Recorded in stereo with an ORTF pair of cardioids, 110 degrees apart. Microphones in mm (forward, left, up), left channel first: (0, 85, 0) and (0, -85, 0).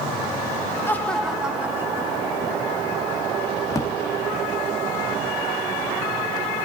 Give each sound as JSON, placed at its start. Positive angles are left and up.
{"t": 0.9, "sound": "laughter", "azimuth_deg": 15, "distance_m": 1.9}
{"t": 3.7, "sound": "a drawer", "azimuth_deg": 20, "distance_m": 1.5}